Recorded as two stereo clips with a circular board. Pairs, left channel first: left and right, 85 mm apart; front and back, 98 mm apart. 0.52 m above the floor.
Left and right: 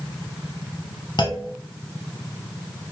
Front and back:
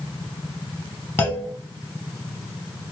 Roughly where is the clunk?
Ahead left.